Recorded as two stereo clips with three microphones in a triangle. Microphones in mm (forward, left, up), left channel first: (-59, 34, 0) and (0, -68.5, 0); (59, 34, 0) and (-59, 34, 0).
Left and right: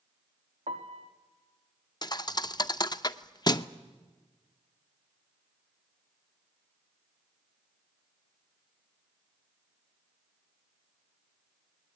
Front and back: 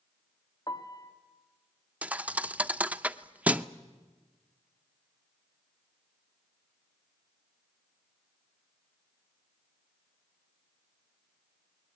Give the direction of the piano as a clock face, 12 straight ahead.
2 o'clock.